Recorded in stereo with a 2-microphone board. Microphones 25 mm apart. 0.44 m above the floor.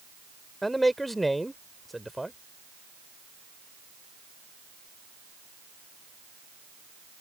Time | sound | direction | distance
0.6 | a man speaking | centre (ahead or behind) | ?